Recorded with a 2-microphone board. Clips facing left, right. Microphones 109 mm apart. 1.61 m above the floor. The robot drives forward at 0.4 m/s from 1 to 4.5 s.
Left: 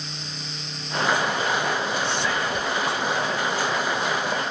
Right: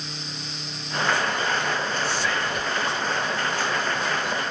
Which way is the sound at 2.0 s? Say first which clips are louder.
Left 1 dB; 20° left (ahead or behind).